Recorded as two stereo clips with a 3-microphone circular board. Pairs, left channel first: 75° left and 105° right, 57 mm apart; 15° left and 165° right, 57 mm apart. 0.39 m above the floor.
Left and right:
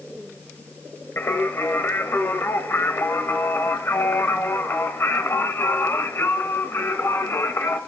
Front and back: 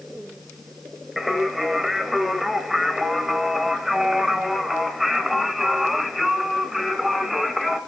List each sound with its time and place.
1.2 s singing: 110° left, 1.2 m